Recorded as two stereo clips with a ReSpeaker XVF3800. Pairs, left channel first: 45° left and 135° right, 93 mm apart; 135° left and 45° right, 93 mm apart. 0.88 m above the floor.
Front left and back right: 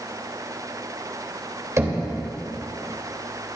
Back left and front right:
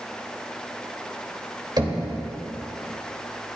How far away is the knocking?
About 3 m.